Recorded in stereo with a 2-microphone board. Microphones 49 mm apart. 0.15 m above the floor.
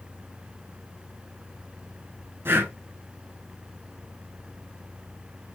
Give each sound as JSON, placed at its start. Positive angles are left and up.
{"t": 2.5, "sound": "breathing", "side_deg": -50, "distance_m": 0.7}